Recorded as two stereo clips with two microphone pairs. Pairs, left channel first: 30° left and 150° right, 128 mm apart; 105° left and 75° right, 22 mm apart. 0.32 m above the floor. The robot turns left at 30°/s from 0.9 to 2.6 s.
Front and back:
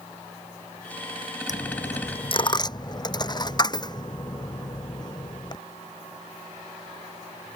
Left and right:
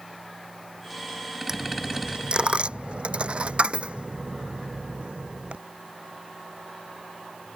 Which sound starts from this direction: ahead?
A dropped coin, at 1.5 s.